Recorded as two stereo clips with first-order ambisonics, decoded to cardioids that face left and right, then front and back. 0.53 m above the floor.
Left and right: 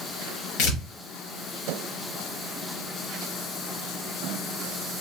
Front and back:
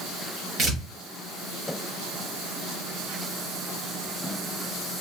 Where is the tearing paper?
110° left, 1.1 m.